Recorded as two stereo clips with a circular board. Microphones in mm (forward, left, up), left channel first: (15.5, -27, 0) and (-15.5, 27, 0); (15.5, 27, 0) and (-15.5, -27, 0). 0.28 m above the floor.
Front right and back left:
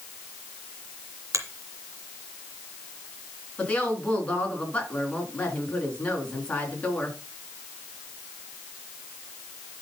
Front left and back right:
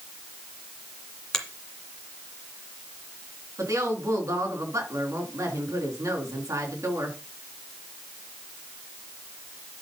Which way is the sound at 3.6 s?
125° right.